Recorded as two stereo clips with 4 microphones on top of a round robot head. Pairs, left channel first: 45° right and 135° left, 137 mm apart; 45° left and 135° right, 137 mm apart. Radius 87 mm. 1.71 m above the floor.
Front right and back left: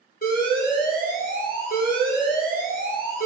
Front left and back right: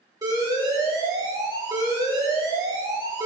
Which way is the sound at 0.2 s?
75° right.